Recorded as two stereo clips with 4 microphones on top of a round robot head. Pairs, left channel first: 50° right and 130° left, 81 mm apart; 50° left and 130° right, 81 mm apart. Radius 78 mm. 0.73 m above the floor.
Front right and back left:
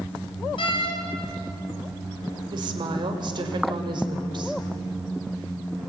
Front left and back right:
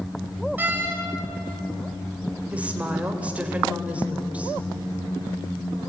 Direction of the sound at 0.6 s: 60° right.